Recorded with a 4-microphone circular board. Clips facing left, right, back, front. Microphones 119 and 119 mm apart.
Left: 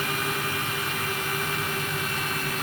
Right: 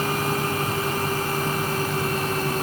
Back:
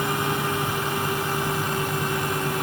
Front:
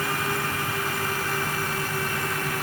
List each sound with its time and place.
Only background noise.